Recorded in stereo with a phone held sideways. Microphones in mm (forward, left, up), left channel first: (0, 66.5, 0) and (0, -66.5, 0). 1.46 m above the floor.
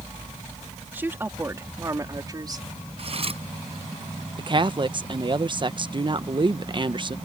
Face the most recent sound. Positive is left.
turn(degrees=-35)  # may be behind; listen again after turning